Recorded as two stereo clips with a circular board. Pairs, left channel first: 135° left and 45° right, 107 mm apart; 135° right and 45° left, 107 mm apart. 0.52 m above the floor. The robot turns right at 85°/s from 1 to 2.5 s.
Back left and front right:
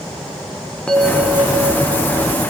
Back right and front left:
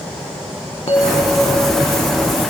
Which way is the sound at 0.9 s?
145° right.